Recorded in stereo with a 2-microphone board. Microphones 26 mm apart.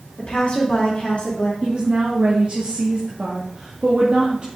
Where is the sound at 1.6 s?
50° right (ahead or behind), 2 m.